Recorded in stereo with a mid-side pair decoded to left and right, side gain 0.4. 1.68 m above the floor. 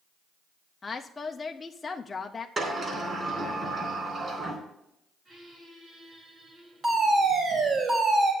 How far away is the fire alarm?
About 5 m.